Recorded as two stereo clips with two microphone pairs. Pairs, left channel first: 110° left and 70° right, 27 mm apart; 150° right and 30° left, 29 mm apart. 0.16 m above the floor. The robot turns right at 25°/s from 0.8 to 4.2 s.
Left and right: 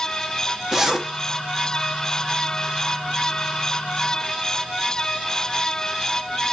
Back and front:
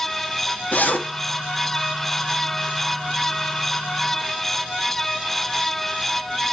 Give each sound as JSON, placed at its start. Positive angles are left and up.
{"t": 0.7, "sound": "a zipper", "azimuth_deg": -140, "distance_m": 1.1}